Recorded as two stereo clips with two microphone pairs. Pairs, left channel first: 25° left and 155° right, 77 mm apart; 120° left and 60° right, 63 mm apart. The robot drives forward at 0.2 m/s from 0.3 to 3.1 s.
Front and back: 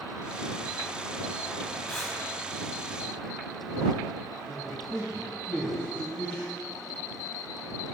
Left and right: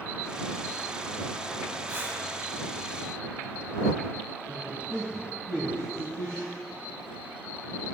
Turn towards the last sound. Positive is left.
turn(degrees=-80)